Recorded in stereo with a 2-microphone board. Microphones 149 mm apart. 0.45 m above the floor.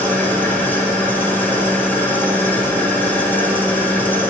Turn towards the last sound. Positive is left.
turn(degrees=15)  # may be behind; listen again after turning